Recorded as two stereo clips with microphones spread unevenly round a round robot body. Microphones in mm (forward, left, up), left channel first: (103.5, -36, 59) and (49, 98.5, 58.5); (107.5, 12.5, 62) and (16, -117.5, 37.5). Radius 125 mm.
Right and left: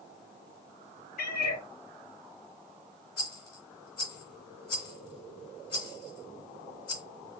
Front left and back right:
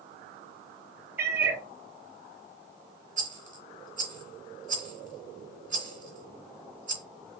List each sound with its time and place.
1.2 s a cat meowing: 50° right, 3 m
3.2 s a rattle: 90° right, 2 m